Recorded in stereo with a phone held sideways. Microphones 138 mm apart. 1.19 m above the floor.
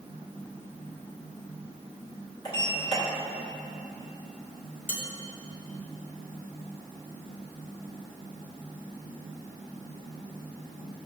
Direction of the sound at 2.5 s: 35° left (ahead or behind).